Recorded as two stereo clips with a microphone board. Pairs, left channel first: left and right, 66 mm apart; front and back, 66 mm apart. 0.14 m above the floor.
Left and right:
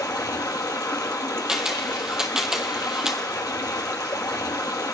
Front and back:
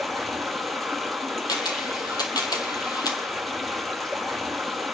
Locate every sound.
0.0 s running water: 90° left, 1.5 m
1.5 s a camera shutter: 10° right, 1.6 m